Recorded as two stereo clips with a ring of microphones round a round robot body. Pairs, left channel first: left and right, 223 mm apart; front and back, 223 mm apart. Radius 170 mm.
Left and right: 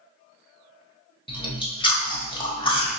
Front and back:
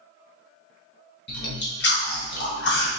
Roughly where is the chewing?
Ahead left.